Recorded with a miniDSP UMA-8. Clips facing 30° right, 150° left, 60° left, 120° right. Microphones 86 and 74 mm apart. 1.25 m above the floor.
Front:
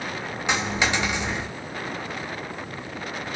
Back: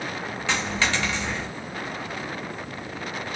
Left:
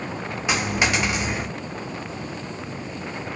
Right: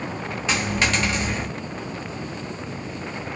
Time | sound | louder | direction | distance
0.5 | a dropped coin | front 2 dB, left 1 dB | 10° left | 0.5 m